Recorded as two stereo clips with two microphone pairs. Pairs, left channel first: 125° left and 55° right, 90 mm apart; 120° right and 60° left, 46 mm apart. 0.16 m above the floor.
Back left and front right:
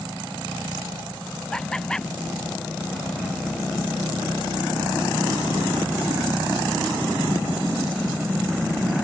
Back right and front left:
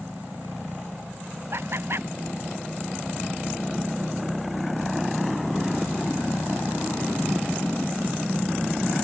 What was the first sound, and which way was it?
Laughter, 40° left.